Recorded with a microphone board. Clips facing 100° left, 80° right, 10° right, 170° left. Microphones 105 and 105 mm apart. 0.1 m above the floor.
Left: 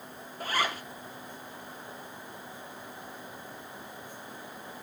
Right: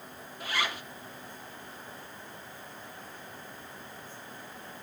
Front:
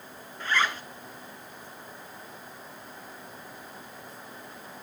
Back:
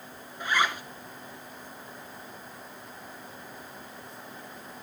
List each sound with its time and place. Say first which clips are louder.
0.4 s a zipper: left 3 dB, back 1 dB; 100° left, 0.8 m